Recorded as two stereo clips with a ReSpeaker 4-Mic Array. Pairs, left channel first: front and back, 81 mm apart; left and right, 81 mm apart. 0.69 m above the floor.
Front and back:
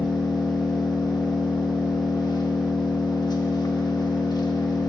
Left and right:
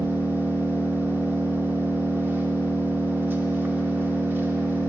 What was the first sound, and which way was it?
An engine running, 25° right.